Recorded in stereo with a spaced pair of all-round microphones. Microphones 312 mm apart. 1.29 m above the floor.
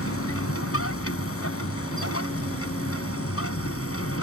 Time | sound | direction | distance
0.0 | a machine running | 45° left (ahead or behind) | ?